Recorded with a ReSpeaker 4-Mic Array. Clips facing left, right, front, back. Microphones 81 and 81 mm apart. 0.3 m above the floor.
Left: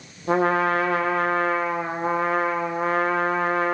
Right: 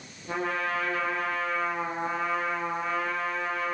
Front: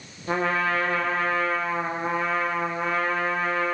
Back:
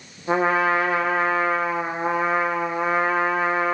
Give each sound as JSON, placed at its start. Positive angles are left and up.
{"t": 0.3, "sound": "a trumpet", "azimuth_deg": 105, "distance_m": 7.0}